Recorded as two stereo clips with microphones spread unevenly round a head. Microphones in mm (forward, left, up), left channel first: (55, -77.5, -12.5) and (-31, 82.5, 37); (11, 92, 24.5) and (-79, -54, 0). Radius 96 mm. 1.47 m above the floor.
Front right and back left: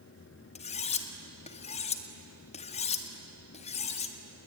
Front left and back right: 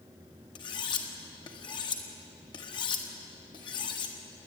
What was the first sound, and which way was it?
Cutlery clinking, 5° right.